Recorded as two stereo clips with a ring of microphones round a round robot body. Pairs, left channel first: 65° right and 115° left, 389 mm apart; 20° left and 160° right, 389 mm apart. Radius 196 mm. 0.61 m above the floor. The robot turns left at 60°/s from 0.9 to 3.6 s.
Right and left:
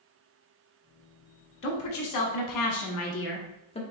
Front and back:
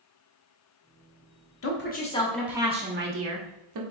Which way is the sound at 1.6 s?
20° right.